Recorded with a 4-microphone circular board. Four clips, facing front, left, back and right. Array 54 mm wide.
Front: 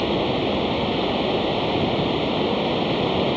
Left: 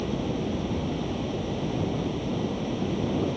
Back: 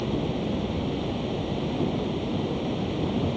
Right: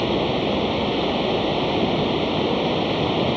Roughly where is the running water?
Ahead right.